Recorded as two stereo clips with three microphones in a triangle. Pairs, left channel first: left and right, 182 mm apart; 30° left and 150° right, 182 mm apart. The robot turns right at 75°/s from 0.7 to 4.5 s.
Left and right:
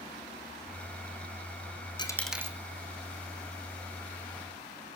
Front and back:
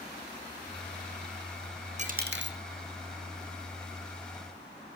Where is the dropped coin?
160° left, 2 m; by 2.6 s 160° right, 2 m.